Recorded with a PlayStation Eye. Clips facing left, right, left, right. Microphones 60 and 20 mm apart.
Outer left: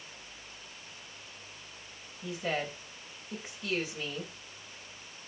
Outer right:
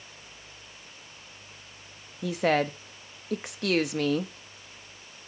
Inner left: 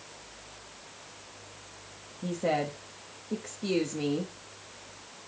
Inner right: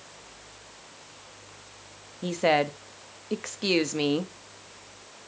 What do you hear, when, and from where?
2.2 s a woman speaking: 65° right (ahead or behind), 0.7 m